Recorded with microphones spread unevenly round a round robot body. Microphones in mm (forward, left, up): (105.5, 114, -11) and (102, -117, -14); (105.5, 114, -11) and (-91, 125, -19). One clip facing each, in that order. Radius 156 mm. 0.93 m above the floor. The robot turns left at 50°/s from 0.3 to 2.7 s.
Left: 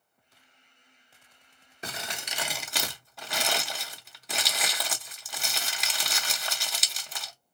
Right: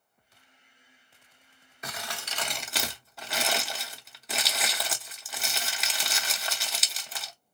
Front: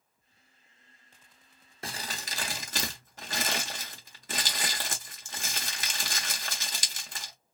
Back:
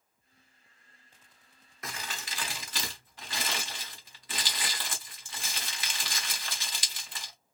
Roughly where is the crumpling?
Ahead left.